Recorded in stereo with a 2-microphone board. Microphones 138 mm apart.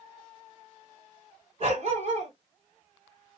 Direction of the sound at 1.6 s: 55° right (ahead or behind).